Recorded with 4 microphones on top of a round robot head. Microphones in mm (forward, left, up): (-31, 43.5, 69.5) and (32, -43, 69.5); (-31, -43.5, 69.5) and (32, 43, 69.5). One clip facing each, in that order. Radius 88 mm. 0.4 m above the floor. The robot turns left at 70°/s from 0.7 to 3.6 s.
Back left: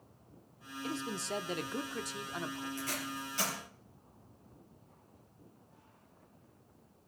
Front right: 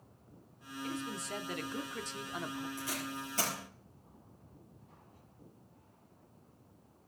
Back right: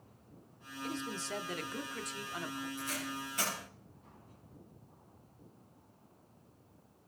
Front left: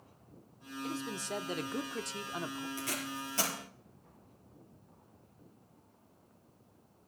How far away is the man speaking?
About 0.8 m.